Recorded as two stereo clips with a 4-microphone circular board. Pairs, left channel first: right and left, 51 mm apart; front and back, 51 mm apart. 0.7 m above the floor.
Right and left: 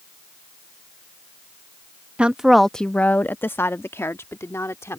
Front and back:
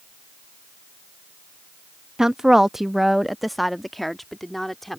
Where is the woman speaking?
120° left; by 5.0 s 85° right.